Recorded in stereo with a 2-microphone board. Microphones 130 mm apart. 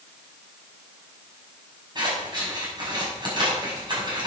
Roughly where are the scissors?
Right.